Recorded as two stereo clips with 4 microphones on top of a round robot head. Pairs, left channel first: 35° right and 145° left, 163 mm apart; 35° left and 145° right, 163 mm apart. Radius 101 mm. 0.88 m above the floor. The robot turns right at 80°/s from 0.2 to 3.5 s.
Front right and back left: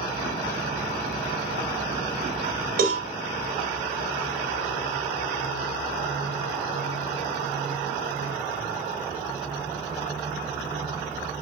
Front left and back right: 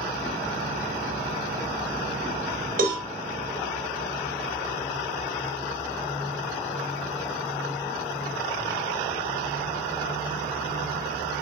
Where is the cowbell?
Straight behind, 2.5 m; by 3.1 s 160° right, 2.5 m.